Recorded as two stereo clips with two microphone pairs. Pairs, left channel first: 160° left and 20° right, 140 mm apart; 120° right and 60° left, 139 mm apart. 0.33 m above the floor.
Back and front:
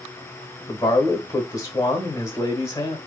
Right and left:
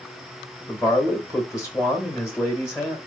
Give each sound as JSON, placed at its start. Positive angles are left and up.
{"t": 0.7, "sound": "a man speaking", "azimuth_deg": -165, "distance_m": 1.1}